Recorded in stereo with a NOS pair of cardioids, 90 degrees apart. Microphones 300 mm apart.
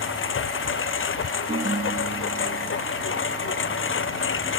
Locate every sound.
0.0 s a lawn mower: 40° left
1.5 s a ringtone: 25° right